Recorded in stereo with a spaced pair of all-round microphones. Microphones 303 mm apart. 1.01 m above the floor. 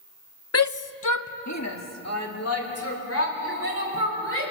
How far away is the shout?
About 0.6 m.